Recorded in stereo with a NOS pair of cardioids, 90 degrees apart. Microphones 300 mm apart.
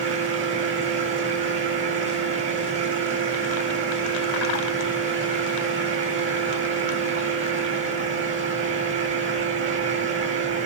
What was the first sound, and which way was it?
A fan, 40° right.